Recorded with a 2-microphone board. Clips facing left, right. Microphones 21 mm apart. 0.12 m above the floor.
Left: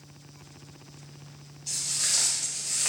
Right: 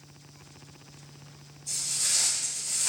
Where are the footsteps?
45° left (ahead or behind), 2.0 m; by 2.9 s 50° left (ahead or behind), 1.3 m.